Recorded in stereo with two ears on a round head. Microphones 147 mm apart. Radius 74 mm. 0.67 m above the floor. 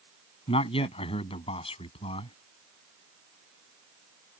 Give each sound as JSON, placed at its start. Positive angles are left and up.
{"t": 0.5, "sound": "a man speaking", "side_deg": 35}